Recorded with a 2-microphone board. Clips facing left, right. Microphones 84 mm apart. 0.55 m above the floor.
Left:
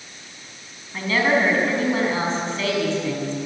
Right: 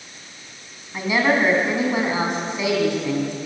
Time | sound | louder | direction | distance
0.9 | a woman speaking | right 1 dB | 15° right (ahead or behind) | 5 m